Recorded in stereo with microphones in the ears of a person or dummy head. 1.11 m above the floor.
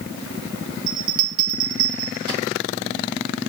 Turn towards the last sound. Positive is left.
turn(degrees=-25)  # may be behind; listen again after turning